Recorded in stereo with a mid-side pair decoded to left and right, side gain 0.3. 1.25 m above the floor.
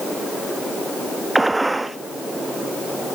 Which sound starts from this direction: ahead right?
A gunshot, at 1.4 s.